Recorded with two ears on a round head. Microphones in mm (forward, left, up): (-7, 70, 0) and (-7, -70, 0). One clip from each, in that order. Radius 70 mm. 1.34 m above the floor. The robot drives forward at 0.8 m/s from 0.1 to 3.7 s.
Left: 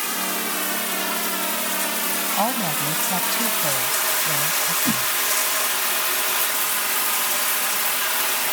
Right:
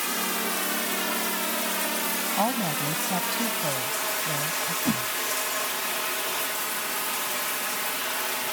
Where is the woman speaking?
25° left (ahead or behind).